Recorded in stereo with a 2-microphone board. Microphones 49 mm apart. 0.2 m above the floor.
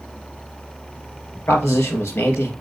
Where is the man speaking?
55° left (ahead or behind), 3 m.